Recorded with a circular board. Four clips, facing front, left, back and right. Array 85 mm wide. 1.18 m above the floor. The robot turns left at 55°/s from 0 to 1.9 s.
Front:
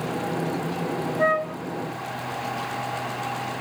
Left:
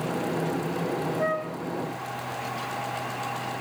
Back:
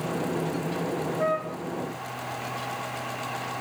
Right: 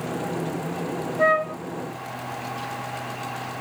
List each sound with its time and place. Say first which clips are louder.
1.2 s a flute: right 7 dB, front 6 dB; 60° right, 0.6 m; by 1.6 s 80° right, 0.6 m